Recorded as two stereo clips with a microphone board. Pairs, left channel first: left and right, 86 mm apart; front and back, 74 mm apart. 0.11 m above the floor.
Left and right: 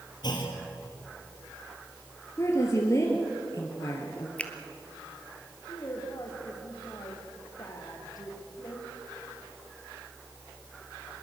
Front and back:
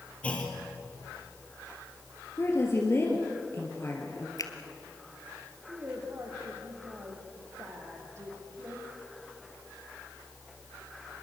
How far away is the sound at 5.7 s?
About 5 m.